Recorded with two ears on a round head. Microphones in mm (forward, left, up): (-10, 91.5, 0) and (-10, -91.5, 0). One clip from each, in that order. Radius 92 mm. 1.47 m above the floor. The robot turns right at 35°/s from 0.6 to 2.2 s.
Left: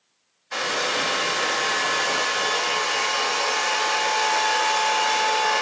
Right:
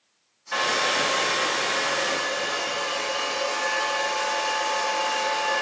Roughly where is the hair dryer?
Ahead.